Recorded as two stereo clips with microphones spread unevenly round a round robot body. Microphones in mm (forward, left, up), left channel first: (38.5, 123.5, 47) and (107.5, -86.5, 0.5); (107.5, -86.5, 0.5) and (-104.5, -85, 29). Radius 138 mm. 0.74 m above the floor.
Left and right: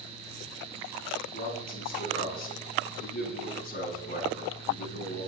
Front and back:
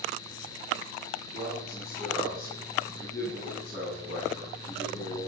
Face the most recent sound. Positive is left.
turn(degrees=60)